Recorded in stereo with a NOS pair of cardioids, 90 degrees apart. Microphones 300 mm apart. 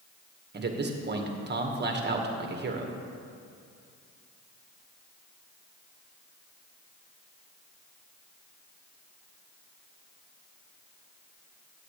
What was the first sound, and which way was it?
A man speaking, 35° right.